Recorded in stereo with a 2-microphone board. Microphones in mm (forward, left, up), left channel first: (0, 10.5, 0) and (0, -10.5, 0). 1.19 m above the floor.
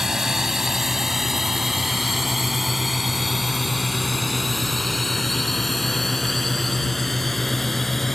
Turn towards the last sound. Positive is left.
turn(degrees=15)  # may be behind; listen again after turning